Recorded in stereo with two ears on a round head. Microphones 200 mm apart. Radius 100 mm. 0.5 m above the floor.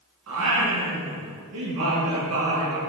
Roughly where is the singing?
Right.